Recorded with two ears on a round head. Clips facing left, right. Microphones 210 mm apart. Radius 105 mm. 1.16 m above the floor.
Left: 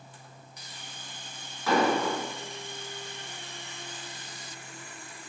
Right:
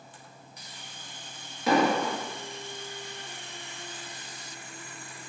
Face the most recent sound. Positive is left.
turn(degrees=-20)  # may be behind; listen again after turning